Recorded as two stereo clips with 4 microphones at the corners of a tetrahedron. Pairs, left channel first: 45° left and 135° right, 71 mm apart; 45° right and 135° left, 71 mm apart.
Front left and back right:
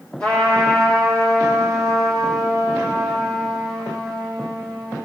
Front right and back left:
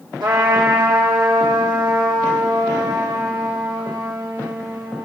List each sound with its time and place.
0.2 s a trumpet: 120° left, 3 m